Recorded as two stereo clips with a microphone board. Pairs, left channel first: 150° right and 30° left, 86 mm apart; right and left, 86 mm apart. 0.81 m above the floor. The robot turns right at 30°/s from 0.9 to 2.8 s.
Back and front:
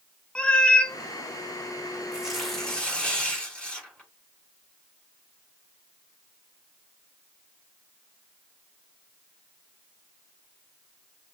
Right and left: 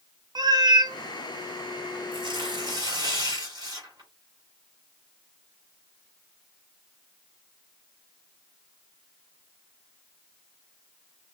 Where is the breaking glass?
I don't hear breaking glass.